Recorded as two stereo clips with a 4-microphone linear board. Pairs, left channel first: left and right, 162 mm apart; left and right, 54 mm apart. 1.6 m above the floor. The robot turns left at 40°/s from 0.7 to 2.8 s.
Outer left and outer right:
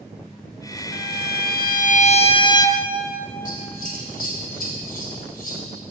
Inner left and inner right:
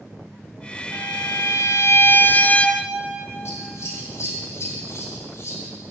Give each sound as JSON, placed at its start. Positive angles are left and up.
{"t": 0.9, "sound": "a violin", "azimuth_deg": 90, "distance_m": 0.6}
{"t": 3.5, "sound": "scissors", "side_deg": 60, "distance_m": 3.0}